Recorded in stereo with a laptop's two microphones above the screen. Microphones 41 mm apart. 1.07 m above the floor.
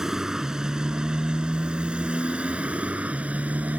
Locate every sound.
0.0 s a motorcycle: 15° right (ahead or behind); by 3.8 s 40° right (ahead or behind)